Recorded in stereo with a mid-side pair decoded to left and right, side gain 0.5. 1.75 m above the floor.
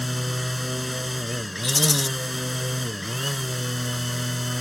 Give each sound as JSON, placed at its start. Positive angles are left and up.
{"t": 0.0, "sound": "a machine running", "azimuth_deg": 10}
{"t": 1.6, "sound": "a rattle", "azimuth_deg": 20}